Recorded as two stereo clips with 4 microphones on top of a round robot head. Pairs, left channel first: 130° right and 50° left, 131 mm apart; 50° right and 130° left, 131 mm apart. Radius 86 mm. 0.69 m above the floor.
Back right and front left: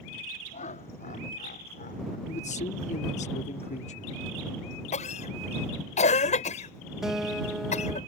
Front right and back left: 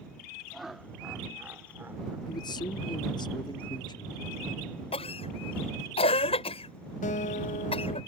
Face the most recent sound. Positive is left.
turn(degrees=-40)